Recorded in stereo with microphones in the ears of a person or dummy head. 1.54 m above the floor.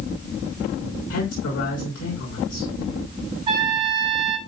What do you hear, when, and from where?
1.1 s a man speaking: 85° left, 5.5 m
3.5 s a trumpet: 25° right (ahead or behind), 3 m